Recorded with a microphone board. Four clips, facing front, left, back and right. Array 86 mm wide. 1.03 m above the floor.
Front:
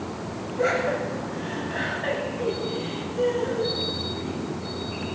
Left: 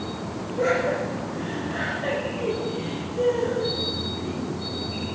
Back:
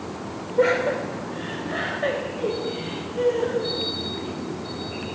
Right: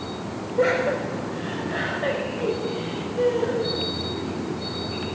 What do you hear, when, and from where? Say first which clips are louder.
0.6 s laughter: right 2 dB, back 4 dB; 155° right, 4 m; by 4.4 s 160° right, 9 m